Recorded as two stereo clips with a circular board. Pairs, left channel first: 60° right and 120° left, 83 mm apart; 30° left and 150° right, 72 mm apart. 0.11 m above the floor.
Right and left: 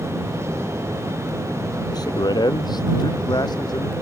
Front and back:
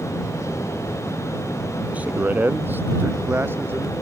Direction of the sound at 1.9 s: 80° right.